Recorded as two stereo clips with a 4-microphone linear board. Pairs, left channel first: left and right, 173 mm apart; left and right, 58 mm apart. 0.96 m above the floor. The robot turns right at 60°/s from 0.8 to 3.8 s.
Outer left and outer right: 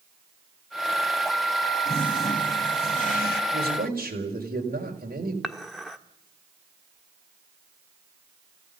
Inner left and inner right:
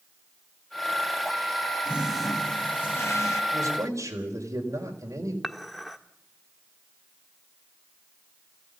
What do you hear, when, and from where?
1.9 s a toilet flushing: 20° right, 2.5 m; by 3.4 s 70° left, 2.5 m
3.5 s a man speaking: 75° right (ahead or behind), 4.5 m; by 5.3 s 60° right (ahead or behind), 4.5 m
5.4 s dishes clattering: centre (ahead or behind), 1.3 m